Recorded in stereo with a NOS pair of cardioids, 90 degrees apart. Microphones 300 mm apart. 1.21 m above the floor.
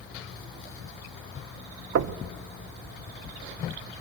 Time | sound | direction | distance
1.9 | knocking | 55° right | 0.7 m